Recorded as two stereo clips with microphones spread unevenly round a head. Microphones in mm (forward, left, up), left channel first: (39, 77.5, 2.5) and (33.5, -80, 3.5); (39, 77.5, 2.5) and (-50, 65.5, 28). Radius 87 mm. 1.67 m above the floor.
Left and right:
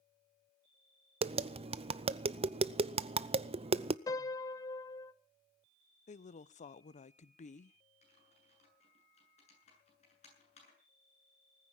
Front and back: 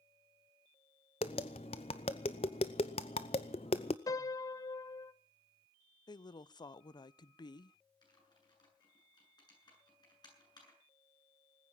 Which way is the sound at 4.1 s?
45° left.